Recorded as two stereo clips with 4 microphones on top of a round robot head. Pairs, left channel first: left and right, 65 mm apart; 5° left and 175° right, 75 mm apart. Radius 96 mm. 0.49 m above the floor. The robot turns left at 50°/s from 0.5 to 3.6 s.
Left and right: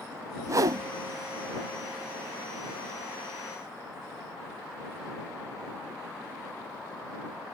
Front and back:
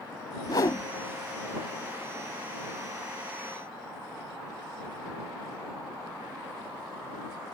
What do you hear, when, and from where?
0.5 s a whoosh: 50° right; by 0.9 s 65° right